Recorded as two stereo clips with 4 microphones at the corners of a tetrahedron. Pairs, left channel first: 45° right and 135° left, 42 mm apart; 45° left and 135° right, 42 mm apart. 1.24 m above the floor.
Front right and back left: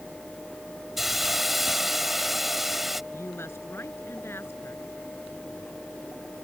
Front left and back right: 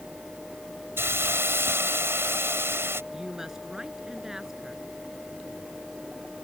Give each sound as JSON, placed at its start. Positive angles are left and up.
{"t": 1.0, "sound": "a hiss", "azimuth_deg": -140}
{"t": 3.1, "sound": "a woman speaking", "azimuth_deg": -55}